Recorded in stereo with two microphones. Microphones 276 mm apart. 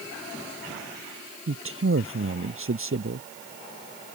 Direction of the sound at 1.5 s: 50° right (ahead or behind).